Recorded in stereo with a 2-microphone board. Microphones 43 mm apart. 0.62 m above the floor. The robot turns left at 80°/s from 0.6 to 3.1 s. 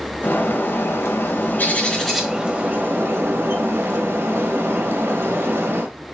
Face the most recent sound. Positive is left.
turn(degrees=-75)